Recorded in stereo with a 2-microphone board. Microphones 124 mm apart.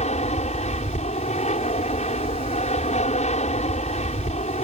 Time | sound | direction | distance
0.0 | an aircraft | 65° left (ahead or behind) | ?